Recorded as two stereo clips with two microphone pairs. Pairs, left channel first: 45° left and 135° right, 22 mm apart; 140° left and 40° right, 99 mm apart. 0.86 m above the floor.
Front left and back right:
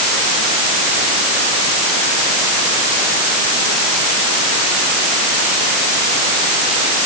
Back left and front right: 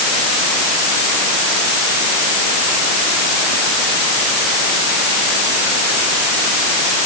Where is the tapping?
I don't hear tapping.